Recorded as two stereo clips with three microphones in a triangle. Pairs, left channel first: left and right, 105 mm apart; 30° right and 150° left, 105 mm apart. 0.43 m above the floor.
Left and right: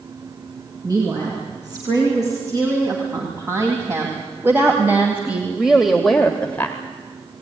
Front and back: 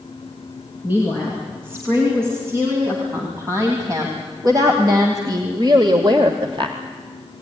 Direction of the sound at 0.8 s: 140° right.